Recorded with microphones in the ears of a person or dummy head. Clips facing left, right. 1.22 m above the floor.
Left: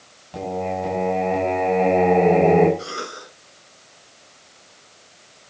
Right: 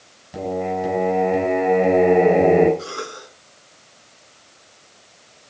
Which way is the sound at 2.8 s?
20° left (ahead or behind).